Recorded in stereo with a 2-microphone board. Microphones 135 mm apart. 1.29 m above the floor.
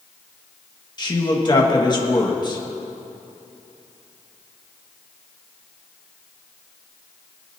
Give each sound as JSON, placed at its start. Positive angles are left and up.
{"t": 1.0, "sound": "a woman speaking", "side_deg": 30, "distance_m": 1.6}